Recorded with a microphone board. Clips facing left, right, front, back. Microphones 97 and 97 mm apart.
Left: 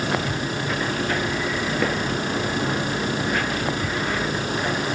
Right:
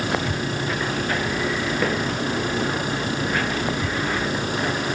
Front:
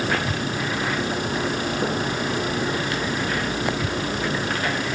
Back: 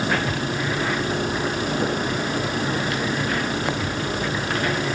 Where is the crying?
I don't hear crying.